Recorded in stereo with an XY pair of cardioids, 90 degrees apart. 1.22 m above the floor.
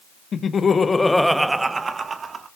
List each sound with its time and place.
0.3 s laughter: 55° left, 1.3 m; by 2.5 s 55° right, 1.8 m